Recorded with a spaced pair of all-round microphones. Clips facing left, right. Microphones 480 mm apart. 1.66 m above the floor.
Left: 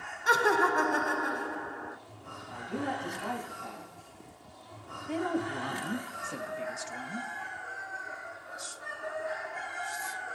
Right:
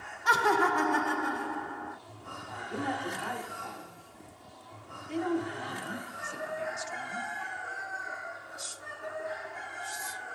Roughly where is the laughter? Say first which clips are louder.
Left 1 dB; right.